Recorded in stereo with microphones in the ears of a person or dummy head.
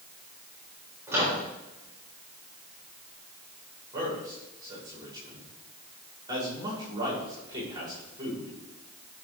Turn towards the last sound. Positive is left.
turn(degrees=-25)  # may be behind; listen again after turning